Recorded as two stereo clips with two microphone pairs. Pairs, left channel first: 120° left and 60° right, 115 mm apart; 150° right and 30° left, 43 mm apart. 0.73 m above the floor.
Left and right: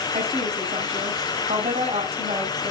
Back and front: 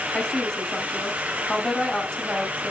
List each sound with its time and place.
0.1 s a woman speaking: 75° right, 3 m